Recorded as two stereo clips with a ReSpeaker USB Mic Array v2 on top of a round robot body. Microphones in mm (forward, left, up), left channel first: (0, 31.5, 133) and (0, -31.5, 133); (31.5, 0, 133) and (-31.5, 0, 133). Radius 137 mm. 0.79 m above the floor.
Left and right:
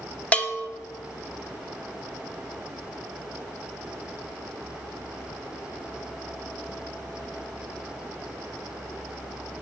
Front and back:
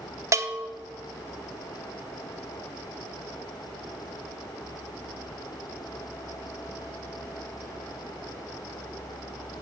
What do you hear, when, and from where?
0.3 s a bell: 155° left, 1.2 m